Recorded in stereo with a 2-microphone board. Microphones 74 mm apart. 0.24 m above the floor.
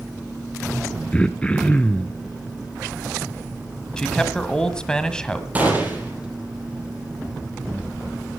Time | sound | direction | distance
1.1 | throat clearing | 20° left (ahead or behind) | 0.9 m
4.0 | a man speaking | 10° left (ahead or behind) | 1.5 m
5.5 | a gunshot | 20° right (ahead or behind) | 5 m